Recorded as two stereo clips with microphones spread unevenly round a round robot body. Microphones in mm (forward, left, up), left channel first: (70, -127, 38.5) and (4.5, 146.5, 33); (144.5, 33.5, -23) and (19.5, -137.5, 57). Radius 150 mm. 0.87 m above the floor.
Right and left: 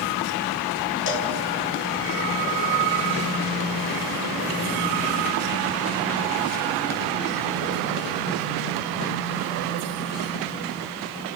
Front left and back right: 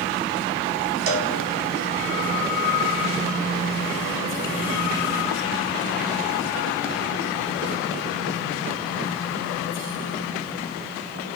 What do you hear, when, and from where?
1.1 s a cowbell: 130° right, 2.5 m